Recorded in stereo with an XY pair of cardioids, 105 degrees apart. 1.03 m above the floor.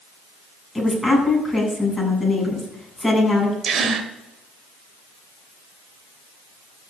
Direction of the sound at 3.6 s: 55° right.